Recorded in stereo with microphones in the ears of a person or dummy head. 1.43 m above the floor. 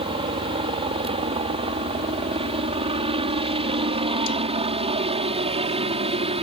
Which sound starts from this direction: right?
A helicopter, at 0.0 s.